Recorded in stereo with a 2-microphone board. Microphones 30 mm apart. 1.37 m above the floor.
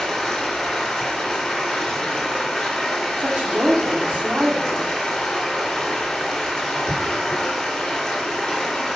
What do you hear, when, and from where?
0.0 s running water: 25° left (ahead or behind), 2.5 m
3.2 s a woman speaking: 70° right (ahead or behind), 1.1 m